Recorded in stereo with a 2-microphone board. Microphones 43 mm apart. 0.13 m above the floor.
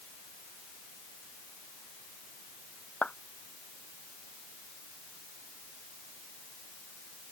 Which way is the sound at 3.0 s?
30° left (ahead or behind).